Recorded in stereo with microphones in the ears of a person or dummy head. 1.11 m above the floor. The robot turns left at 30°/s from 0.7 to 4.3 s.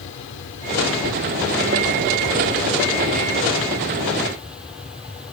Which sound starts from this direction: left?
An aircraft, at 0.0 s.